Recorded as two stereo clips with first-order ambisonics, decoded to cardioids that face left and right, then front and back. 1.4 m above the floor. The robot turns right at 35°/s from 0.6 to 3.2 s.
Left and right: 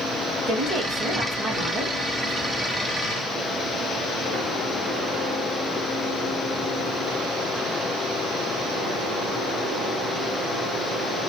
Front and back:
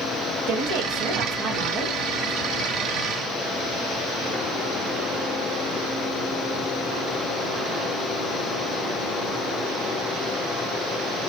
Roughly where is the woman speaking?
Behind.